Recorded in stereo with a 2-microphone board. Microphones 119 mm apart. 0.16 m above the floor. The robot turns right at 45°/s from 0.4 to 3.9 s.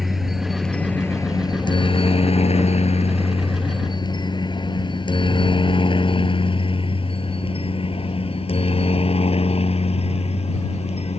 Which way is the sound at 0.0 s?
Centre (ahead or behind).